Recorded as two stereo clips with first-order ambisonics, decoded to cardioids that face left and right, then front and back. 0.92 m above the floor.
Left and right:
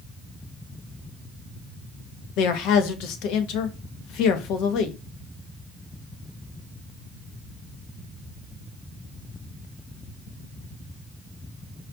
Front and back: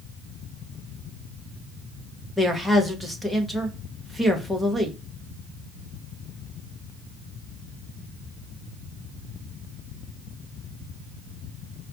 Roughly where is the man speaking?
Left.